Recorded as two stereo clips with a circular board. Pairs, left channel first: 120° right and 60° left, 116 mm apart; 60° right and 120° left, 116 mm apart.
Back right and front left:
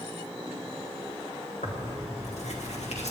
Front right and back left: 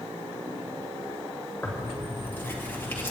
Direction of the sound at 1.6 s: 135° right.